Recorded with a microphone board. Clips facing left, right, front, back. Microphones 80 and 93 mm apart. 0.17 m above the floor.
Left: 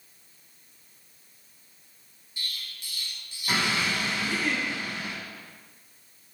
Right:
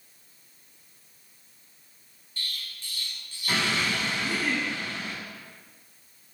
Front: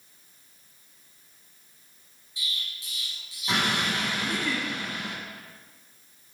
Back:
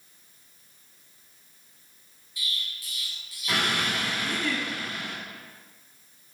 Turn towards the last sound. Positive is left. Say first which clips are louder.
# even, even
turn(degrees=-30)